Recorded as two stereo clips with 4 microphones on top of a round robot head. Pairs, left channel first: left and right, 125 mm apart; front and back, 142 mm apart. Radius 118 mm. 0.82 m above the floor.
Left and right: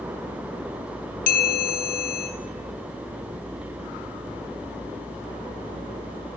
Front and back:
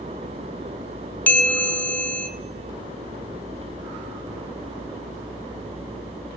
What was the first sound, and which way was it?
A bell, 75° left.